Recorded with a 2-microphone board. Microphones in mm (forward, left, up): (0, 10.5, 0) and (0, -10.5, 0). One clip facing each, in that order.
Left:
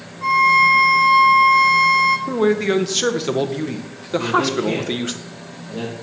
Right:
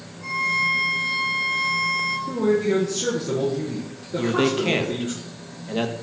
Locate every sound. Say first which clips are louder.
0.2 s a violin: left 9 dB; 40° left (ahead or behind), 1.0 m
2.3 s a man speaking: left 3 dB; 65° left (ahead or behind), 0.9 m
4.2 s a man speaking: left 2 dB; 40° right (ahead or behind), 1.1 m